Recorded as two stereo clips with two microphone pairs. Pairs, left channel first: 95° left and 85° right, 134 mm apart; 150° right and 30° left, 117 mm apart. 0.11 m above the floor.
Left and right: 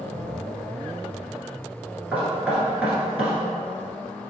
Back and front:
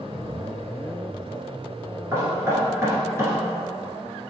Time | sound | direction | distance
2.1 | knocking | 10° right | 1.6 m